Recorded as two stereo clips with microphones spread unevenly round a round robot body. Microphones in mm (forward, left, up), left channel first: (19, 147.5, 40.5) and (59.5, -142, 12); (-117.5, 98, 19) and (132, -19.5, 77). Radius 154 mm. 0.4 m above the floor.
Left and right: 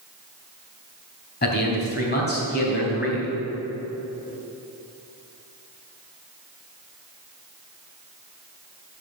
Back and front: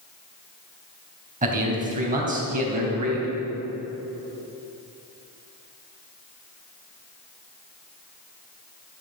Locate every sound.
1.4 s a man speaking: 40° left, 3.5 m